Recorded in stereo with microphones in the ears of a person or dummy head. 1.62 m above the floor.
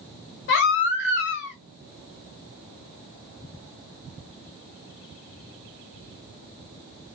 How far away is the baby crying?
About 1.3 m.